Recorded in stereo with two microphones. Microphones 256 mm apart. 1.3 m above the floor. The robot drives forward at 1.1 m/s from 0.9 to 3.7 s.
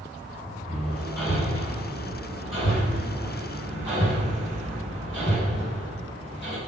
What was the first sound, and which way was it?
Hammering, 60° left (ahead or behind).